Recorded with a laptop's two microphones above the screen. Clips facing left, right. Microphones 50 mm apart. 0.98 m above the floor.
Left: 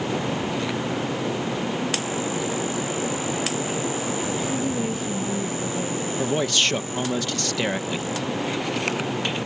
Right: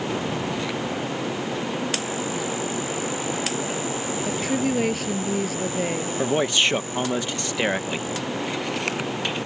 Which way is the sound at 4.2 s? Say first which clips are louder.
Right 1 dB; 85° right.